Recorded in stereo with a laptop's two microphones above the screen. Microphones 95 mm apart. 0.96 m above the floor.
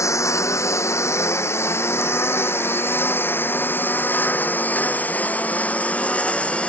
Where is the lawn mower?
30° left (ahead or behind); by 6.7 s 10° left (ahead or behind).